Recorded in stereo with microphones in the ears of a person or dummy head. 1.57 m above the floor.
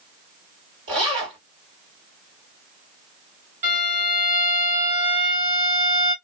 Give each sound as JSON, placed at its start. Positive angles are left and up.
{"t": 0.9, "sound": "a zipper", "side_deg": -40, "distance_m": 2.0}
{"t": 3.6, "sound": "a violin", "side_deg": -40, "distance_m": 1.7}